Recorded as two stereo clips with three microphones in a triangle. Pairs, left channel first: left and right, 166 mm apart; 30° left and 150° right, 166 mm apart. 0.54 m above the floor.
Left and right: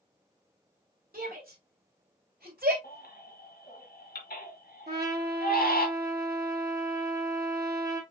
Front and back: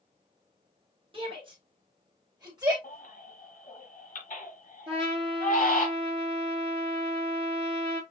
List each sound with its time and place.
1.1 s a shout: 95° right, 2.5 m; by 2.7 s 85° right, 3 m
2.8 s a baby crying: 65° left, 1.7 m
4.9 s a trumpet: 90° right, 2.5 m